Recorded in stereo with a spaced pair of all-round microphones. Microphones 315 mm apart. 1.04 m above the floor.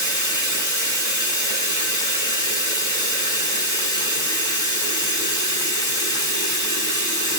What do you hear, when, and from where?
0.0 s running water: 90° right, 6 m